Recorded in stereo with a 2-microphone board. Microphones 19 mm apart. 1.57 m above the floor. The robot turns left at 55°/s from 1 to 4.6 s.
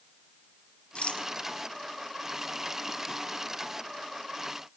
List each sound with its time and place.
0.9 s a rattle: 75° left (ahead or behind), 1.0 m; by 1.3 s 60° left (ahead or behind), 1.0 m